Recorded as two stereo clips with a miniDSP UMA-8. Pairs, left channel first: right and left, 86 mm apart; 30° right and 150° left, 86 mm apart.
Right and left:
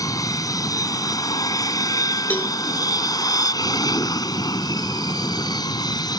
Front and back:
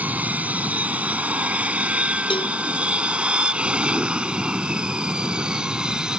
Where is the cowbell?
20° right.